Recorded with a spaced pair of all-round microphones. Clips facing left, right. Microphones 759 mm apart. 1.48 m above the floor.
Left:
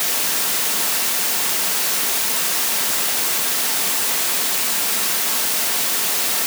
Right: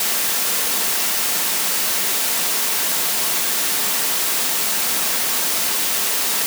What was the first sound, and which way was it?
Only background noise.